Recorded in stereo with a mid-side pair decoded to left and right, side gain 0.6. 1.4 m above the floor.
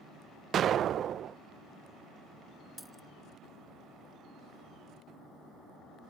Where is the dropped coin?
5° right.